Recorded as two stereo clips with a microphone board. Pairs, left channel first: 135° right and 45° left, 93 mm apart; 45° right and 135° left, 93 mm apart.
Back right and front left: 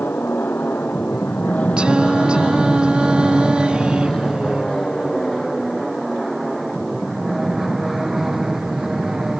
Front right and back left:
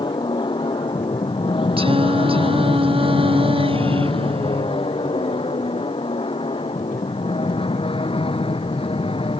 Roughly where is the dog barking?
No dog barking in this recording.